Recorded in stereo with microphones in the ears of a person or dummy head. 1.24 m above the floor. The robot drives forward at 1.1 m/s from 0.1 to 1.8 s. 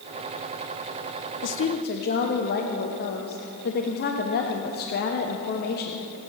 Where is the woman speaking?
55° left (ahead or behind), 0.5 m; by 6.0 s 45° left (ahead or behind), 0.6 m.